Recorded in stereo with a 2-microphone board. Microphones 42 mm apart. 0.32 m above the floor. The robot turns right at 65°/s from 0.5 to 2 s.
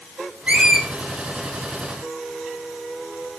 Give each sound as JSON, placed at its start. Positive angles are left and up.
{"t": 0.5, "sound": "a squeak", "side_deg": -25, "distance_m": 1.9}